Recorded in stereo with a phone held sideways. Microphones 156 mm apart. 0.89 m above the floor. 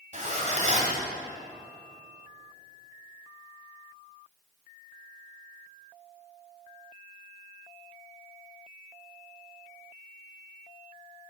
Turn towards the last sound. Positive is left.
turn(degrees=-50)  # may be behind; listen again after turning